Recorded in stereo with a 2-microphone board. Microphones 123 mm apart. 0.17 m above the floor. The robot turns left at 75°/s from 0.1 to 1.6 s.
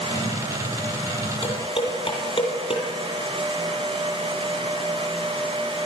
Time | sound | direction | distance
1.4 | dishes clattering | 60° left (ahead or behind) | 3 m